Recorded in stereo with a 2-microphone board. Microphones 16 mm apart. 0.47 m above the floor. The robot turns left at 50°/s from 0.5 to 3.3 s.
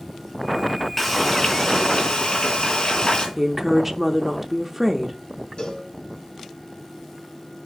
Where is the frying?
170° left, 3.5 m; by 3.3 s 55° left, 3.5 m.